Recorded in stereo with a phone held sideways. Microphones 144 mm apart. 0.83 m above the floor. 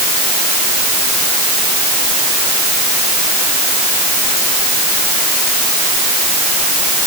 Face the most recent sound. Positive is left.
No sound to turn to.